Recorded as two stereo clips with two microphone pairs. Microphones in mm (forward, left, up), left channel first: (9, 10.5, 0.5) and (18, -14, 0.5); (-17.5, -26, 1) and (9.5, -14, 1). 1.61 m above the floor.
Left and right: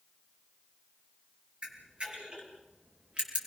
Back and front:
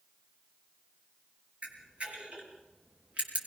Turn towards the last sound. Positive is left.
turn(degrees=-25)